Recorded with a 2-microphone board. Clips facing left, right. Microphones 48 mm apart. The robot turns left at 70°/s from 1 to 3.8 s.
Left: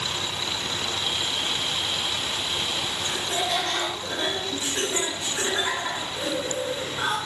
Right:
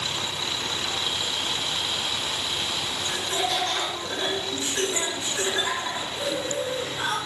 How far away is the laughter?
About 3 m.